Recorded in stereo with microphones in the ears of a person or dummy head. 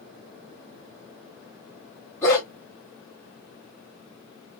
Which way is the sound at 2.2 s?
10° left (ahead or behind).